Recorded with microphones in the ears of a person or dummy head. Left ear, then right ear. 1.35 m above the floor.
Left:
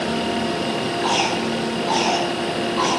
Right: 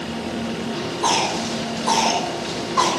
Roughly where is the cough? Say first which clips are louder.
Right 2 dB; right.